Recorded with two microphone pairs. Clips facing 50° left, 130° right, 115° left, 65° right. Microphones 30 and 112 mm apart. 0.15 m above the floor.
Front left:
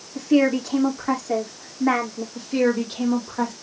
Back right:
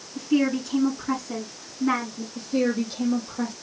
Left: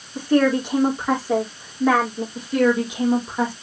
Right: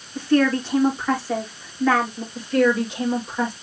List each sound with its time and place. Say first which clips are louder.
0.1 s a woman speaking: front left 4 dB, left 1 dB; 40° left, 6.5 m
2.4 s a woman speaking: front left 3 dB, even; 45° left, 6 m